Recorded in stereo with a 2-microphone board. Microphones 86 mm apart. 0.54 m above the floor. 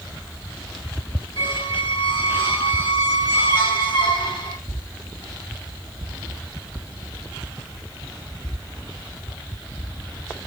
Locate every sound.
1.4 s a squeak: 70° left (ahead or behind), 1.2 m